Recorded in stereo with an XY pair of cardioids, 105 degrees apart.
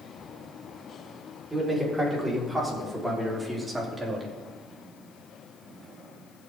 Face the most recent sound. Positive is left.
turn(degrees=-25)